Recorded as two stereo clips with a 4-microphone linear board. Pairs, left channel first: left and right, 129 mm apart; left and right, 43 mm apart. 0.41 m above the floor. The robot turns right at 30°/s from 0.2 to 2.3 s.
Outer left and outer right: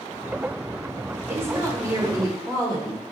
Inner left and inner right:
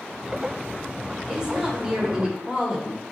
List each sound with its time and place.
1.3 s a woman speaking: 150° right, 0.9 m; by 3.0 s 120° right, 0.9 m